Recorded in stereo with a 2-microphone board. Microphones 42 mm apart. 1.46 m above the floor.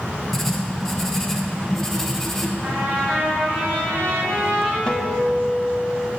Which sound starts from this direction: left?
A guitar, at 4.9 s.